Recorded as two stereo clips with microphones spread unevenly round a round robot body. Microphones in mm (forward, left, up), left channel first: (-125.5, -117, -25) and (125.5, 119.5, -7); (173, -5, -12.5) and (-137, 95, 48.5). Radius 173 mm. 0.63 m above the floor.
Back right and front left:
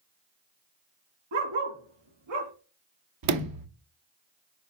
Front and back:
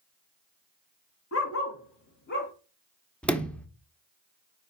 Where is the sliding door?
60° left, 1.0 m.